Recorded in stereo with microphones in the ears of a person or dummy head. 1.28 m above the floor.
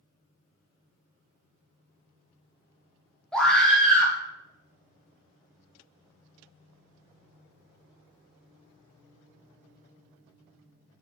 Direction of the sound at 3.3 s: 5° left (ahead or behind).